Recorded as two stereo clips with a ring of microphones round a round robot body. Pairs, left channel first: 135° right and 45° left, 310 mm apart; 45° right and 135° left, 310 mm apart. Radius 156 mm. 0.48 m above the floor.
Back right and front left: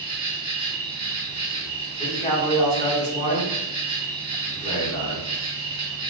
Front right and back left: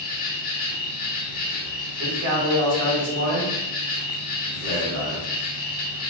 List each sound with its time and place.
0.0 s an insect: 15° right, 0.7 m
2.0 s a man speaking: 160° left, 1.1 m